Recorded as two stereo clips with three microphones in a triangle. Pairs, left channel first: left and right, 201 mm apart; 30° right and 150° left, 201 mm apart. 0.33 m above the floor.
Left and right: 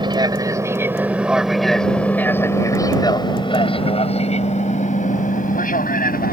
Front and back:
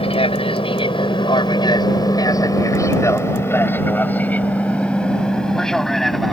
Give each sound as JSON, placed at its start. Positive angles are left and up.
{"t": 0.0, "sound": "an aircraft", "azimuth_deg": -50}